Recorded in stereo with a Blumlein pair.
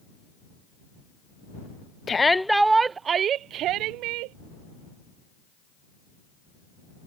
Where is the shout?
15° left; by 4.4 s 45° right.